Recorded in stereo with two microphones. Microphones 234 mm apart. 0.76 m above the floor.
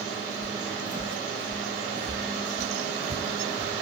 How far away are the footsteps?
About 1.3 m.